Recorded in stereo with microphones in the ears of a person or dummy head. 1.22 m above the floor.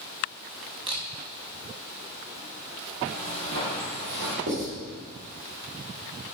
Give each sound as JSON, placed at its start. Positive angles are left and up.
{"t": 0.9, "sound": "a camera shutter", "side_deg": -20, "distance_m": 0.9}
{"t": 3.0, "sound": "footsteps", "side_deg": -50, "distance_m": 1.9}
{"t": 4.5, "sound": "writing", "side_deg": -60, "distance_m": 2.5}